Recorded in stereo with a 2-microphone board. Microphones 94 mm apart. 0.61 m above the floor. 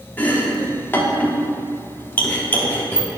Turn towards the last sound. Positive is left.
turn(degrees=20)  # may be behind; listen again after turning